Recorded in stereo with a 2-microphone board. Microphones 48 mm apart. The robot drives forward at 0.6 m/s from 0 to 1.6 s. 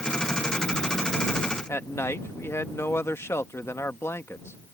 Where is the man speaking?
70° left (ahead or behind).